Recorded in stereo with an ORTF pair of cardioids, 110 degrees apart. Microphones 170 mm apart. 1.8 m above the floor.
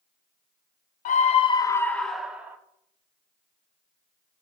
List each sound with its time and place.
1.1 s a scream: 55° left, 0.9 m; by 2.6 s 10° right, 1.4 m